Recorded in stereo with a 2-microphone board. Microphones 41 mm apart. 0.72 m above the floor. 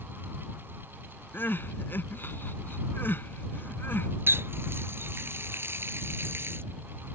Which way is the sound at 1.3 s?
60° left (ahead or behind).